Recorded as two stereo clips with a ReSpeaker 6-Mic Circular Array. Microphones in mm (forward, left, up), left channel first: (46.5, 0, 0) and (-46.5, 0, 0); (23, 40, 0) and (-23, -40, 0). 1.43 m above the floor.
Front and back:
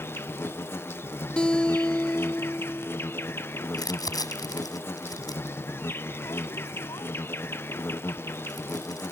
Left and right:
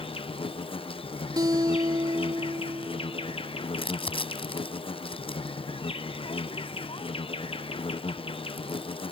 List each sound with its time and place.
0.0 s an insect: 65° left
1.4 s a guitar: 80° right
3.7 s crumpling: 50° left